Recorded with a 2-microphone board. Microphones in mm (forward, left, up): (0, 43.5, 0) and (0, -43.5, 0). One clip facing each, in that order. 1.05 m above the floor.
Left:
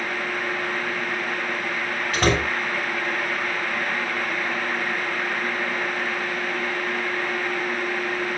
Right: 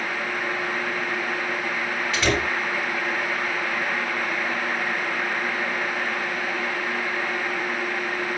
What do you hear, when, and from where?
2.1 s a door slam: 50° left (ahead or behind), 5 m